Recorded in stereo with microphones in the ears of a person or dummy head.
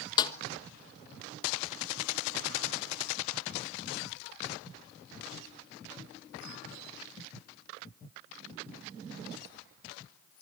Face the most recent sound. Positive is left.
turn(degrees=25)  # may be behind; listen again after turning